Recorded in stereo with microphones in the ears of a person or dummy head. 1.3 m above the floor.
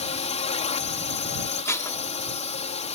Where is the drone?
30° left (ahead or behind).